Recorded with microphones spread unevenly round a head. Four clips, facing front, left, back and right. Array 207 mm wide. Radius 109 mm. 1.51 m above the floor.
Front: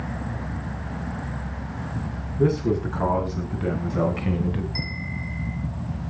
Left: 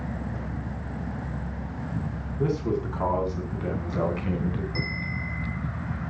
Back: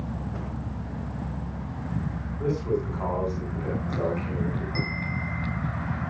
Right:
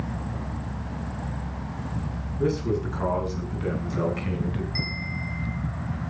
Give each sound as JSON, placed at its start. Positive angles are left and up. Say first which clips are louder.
{"t": 2.4, "sound": "a man speaking", "louder": "right 1 dB, front 5 dB", "azimuth_deg": 10, "distance_m": 8.5}
{"t": 4.8, "sound": "a bell", "louder": "left 1 dB, back 2 dB", "azimuth_deg": 125, "distance_m": 5.0}